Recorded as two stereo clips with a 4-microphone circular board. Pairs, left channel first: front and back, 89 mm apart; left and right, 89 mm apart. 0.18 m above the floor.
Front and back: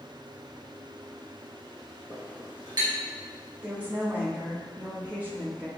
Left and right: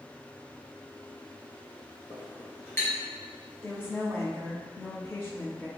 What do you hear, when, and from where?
2.1 s a clink: 145° left, 1.9 m
3.6 s a woman speaking: 125° left, 1.1 m